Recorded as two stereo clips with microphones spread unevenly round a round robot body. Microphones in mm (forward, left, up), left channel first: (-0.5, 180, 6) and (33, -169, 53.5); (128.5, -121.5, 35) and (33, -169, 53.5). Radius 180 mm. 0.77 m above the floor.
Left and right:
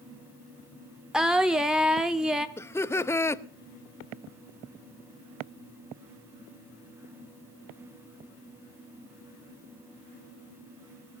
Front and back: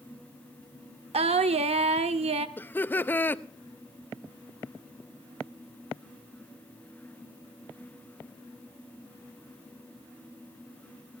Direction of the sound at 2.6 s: 40° left.